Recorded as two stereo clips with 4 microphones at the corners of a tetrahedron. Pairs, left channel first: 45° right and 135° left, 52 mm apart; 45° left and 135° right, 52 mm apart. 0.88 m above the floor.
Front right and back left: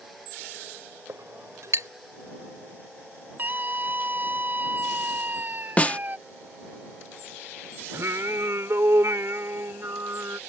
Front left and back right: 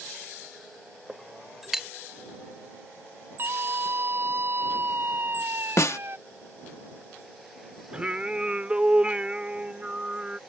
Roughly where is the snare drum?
Ahead.